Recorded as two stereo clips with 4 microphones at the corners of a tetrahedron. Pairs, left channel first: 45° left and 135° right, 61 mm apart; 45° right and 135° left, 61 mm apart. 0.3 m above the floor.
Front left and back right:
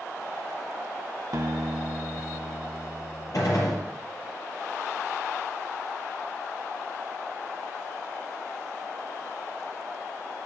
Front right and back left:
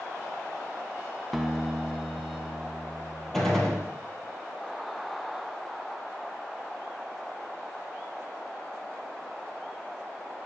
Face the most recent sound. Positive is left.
turn(degrees=35)